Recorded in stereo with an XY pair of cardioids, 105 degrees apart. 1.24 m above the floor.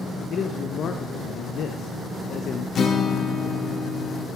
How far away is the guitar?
About 1.8 m.